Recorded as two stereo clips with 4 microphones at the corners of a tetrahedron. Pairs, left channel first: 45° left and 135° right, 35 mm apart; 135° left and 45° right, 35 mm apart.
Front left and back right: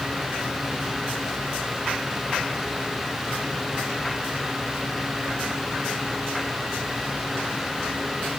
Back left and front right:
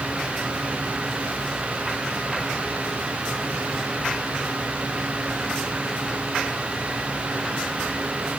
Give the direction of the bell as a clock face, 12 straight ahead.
No bell in this recording.